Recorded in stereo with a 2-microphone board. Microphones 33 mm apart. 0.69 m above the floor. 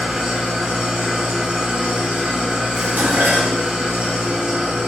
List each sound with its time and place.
0.0 s an engine running: 25° right (ahead or behind), 1.0 m
2.8 s dishes clattering: 80° right, 0.8 m